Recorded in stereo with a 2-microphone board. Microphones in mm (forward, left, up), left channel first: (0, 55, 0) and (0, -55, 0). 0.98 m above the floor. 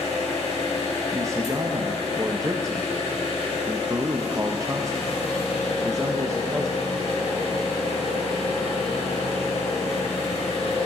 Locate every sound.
0.0 s an engine running: 75° left (ahead or behind), 2.5 m
1.1 s a man speaking: 30° right (ahead or behind), 0.6 m